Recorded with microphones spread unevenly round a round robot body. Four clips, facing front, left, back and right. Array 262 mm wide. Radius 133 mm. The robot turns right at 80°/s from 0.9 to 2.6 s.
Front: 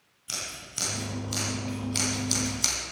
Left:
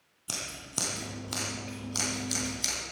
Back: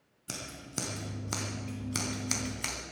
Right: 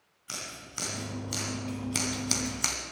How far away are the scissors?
About 2.5 m.